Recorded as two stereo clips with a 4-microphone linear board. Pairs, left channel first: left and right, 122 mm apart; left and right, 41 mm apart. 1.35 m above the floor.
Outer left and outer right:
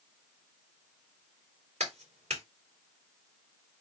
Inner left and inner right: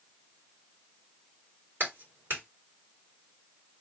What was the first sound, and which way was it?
A clap, 65° right (ahead or behind).